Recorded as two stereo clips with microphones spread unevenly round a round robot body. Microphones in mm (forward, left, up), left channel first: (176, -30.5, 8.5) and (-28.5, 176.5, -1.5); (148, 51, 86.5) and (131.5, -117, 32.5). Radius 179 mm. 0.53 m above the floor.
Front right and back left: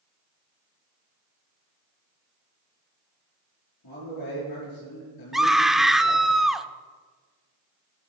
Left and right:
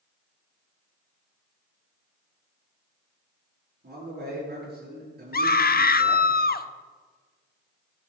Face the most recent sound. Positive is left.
turn(degrees=45)